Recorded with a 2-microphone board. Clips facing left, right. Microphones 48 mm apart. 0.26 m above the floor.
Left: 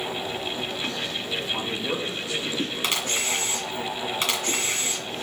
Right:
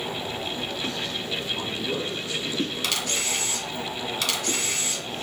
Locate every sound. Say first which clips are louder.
1.5 s a man speaking: left 1 dB; 70° left (ahead or behind), 3.5 m; by 2.7 s 60° left (ahead or behind), 3 m
2.8 s a camera shutter: left 1 dB; 30° left (ahead or behind), 1.8 m